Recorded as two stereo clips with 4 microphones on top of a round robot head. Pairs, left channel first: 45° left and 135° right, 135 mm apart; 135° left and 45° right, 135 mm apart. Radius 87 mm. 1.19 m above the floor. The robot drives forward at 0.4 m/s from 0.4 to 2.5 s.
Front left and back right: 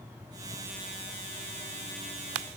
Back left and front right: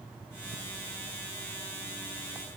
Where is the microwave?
I don't hear a microwave.